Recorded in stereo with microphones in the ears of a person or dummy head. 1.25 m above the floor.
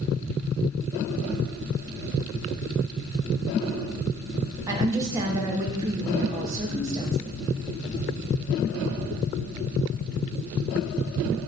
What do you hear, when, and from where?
4.7 s a woman speaking: 15° right (ahead or behind), 1.3 m